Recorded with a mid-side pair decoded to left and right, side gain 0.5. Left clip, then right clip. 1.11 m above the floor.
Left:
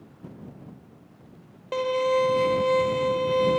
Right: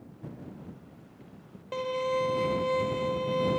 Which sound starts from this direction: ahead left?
A violin, at 1.7 s.